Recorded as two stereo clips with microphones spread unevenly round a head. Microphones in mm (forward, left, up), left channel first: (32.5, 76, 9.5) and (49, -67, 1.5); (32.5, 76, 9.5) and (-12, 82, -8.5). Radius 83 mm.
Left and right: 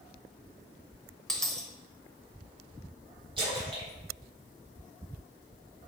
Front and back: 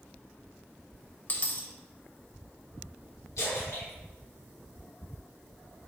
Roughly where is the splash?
Ahead right.